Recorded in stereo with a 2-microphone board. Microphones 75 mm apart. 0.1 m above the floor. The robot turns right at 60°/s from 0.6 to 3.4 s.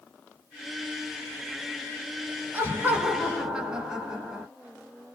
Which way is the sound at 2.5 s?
25° right (ahead or behind).